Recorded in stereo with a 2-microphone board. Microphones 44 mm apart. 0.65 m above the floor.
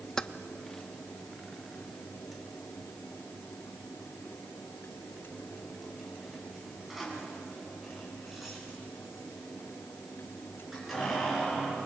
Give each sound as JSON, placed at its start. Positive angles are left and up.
{"t": 0.2, "sound": "keys jangling", "side_deg": 15, "distance_m": 0.5}